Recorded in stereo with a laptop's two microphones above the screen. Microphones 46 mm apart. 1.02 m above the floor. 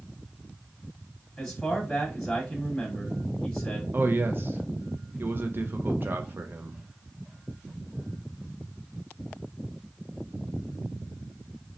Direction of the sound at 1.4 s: 10° left (ahead or behind).